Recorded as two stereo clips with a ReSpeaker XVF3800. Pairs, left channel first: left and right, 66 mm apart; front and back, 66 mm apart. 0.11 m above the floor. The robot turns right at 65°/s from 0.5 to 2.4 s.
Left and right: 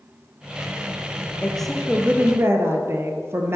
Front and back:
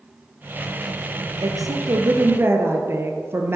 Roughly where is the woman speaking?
Behind.